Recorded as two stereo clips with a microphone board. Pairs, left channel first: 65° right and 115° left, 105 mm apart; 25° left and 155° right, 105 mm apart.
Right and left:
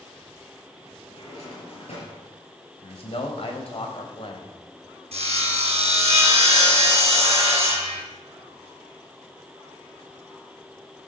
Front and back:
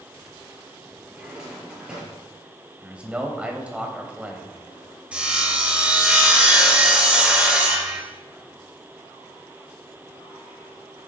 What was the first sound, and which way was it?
A drawer, 75° right.